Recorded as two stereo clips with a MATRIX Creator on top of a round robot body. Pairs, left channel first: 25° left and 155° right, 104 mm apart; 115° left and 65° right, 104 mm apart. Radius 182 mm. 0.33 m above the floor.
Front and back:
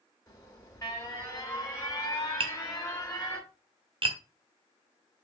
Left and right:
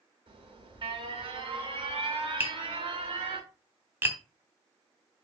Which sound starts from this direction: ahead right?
An alarm, at 0.3 s.